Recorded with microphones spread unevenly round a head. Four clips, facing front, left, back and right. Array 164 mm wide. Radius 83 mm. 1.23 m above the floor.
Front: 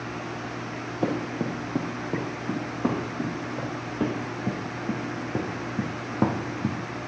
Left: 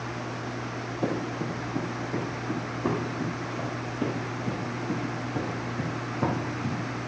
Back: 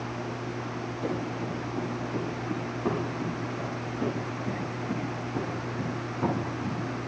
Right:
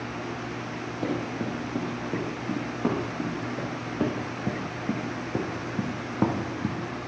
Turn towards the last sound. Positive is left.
turn(degrees=-25)